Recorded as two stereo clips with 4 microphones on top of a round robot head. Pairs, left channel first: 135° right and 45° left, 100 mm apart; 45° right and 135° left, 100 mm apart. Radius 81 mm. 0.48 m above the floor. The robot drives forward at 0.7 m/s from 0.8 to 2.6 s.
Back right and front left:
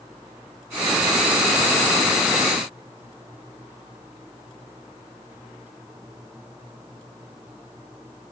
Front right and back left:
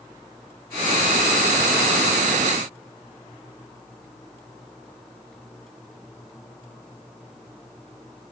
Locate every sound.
Only background noise.